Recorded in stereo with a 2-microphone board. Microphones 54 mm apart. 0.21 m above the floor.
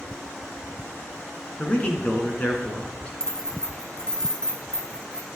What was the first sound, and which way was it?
A man speaking, 25° left (ahead or behind).